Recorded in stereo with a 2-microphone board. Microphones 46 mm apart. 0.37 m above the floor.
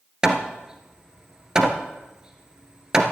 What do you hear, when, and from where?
0.2 s hammering: 20° right (ahead or behind), 1.5 m